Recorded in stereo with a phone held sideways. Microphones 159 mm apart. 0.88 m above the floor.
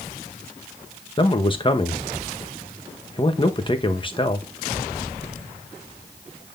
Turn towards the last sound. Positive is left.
turn(degrees=30)  # may be behind; listen again after turning